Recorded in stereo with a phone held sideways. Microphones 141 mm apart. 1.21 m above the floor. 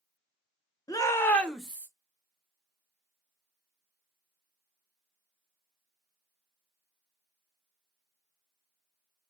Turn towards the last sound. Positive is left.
turn(degrees=-15)  # may be behind; listen again after turning